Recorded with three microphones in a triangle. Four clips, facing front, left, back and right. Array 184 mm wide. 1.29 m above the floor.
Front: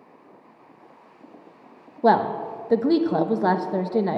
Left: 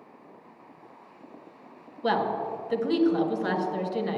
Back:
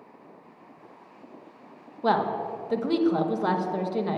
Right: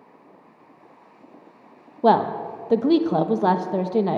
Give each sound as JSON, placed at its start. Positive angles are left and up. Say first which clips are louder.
{"t": 2.0, "sound": "a woman speaking", "louder": "right 8 dB, front 5 dB", "azimuth_deg": -55, "distance_m": 1.1}